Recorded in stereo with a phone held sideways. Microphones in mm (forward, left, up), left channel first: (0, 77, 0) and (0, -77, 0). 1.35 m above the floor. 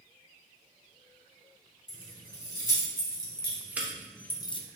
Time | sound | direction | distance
1.9 | keys jangling | 30° right (ahead or behind) | 3 m